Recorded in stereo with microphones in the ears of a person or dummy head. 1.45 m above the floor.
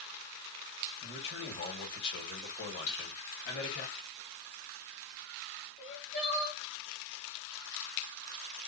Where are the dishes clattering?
50° left (ahead or behind), 2.5 m.